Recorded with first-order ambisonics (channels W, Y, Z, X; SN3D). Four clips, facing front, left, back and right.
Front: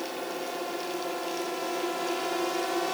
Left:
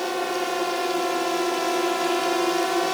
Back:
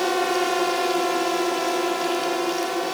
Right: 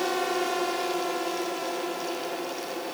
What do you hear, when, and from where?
0.0 s a drone: straight behind; by 2.9 s 100° left